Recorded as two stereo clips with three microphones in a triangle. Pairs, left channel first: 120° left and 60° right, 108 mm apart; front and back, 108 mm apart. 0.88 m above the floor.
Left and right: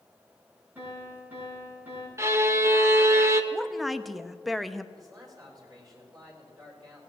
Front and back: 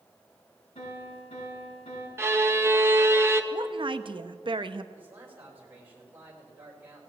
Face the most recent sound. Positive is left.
turn(degrees=-110)